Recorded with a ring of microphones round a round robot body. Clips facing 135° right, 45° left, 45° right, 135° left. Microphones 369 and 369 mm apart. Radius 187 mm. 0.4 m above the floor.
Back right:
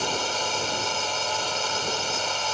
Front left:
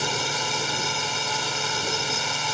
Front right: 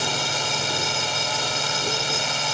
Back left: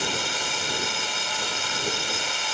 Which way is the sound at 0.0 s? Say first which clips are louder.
Back right 1 dB, front right 2 dB; 15° right.